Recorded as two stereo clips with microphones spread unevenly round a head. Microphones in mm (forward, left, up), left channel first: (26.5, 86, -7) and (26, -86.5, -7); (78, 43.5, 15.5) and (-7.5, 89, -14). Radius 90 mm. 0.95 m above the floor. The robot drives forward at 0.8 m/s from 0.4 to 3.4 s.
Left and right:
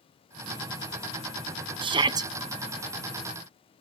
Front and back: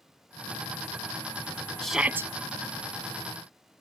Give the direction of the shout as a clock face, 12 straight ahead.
4 o'clock.